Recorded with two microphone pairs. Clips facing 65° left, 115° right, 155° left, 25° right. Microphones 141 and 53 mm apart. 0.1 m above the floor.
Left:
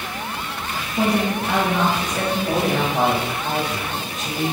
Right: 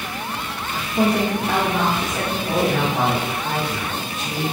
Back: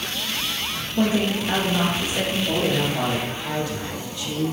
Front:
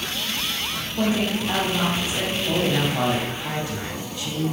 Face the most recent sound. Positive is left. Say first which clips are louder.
# right 3 dB, front 2 dB
turn(degrees=15)